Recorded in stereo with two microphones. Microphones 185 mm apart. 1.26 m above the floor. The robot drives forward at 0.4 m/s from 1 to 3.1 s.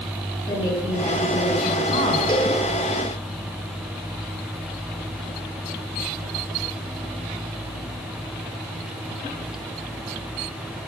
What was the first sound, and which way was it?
A woman speaking, 25° left (ahead or behind).